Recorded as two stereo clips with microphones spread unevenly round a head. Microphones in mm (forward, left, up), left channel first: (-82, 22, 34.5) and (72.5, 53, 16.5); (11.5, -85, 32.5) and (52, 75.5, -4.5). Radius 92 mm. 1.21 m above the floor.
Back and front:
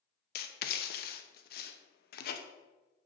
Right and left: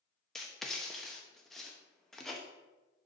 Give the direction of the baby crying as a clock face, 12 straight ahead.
I don't hear a baby crying.